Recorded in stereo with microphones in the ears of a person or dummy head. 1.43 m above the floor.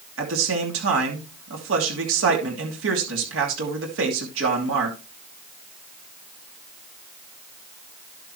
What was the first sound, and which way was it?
A man speaking, 85° right.